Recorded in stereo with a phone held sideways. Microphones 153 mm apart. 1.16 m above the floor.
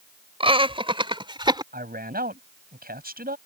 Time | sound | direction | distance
0.4 | laughter | 35° right (ahead or behind) | ?
1.7 | a man speaking | 80° right | ?